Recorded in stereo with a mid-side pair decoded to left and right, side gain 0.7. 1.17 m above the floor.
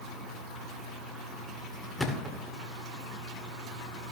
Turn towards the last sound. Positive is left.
turn(degrees=10)